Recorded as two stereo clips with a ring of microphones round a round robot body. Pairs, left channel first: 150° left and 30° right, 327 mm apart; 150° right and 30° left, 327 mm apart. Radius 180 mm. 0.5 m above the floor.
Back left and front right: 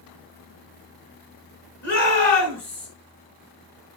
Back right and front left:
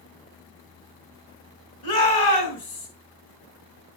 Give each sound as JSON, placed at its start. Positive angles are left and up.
{"t": 1.8, "sound": "a shout", "azimuth_deg": -150, "distance_m": 5.5}